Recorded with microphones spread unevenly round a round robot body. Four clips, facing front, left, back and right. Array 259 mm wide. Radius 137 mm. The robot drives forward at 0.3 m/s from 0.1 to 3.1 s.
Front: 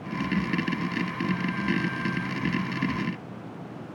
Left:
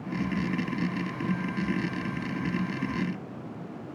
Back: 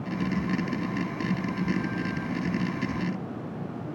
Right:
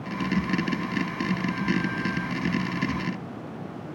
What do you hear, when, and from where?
Only background noise.